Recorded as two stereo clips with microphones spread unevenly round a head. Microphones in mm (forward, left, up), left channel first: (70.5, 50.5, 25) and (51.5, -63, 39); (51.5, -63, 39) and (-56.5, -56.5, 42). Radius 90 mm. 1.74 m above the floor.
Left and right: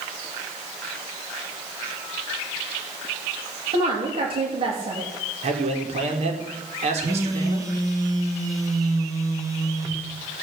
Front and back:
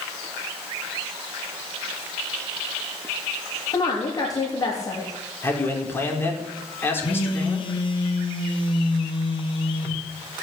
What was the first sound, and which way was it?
A woman speaking, 60° right.